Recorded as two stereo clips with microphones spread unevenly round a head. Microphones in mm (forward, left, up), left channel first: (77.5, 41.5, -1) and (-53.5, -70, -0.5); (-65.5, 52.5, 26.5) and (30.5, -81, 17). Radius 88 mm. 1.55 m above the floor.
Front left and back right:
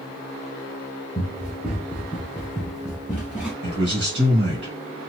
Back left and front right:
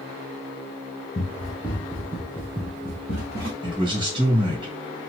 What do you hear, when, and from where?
1.1 s running footsteps: 140° left, 1.6 m; by 3.5 s 55° right, 2.5 m
3.6 s a man speaking: 115° right, 1.8 m